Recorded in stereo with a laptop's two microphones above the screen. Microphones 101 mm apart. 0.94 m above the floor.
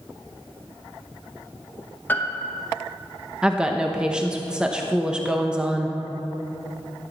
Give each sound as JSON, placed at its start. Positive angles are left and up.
{"t": 2.1, "sound": "a piano", "side_deg": 20, "distance_m": 1.0}
{"t": 3.4, "sound": "a woman speaking", "side_deg": -10, "distance_m": 0.9}